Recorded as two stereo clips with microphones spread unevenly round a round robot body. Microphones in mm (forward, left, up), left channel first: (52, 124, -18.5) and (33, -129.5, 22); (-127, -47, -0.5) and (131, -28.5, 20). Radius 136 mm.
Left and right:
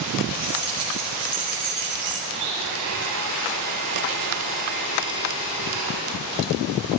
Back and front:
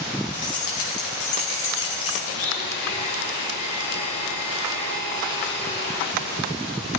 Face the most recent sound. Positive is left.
turn(degrees=-125)